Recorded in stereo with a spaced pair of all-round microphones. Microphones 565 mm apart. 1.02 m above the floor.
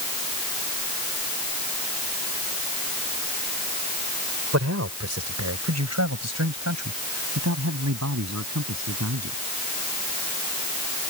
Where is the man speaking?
25° right (ahead or behind); by 9.4 s 30° right (ahead or behind).